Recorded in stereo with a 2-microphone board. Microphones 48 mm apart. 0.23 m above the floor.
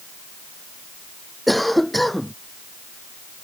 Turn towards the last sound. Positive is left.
turn(degrees=0)  # may be behind; listen again after turning